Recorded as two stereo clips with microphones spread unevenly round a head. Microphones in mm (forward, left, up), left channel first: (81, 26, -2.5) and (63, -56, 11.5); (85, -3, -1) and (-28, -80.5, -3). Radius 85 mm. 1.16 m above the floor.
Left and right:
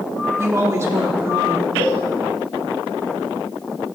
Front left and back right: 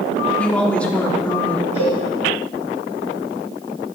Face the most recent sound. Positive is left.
turn(degrees=140)